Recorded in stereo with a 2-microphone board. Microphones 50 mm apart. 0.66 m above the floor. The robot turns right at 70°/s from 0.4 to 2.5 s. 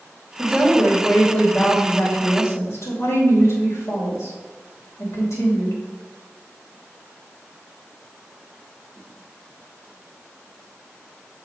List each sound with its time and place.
0.4 s a woman speaking: 40° right, 3 m; by 5.8 s 105° left, 3 m